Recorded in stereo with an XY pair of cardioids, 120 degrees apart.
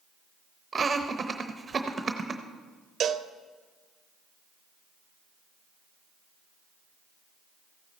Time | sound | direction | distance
0.7 | laughter | 25° right | 0.8 m
3.0 | a cowbell | 45° right | 0.6 m